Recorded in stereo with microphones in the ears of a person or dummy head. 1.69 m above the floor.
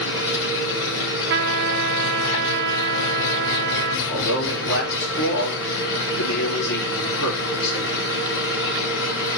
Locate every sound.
0.0 s an engine running: 65° left (ahead or behind), 7.5 m
1.3 s a trumpet: 65° right (ahead or behind), 0.8 m
4.1 s a man speaking: 65° left (ahead or behind), 4.5 m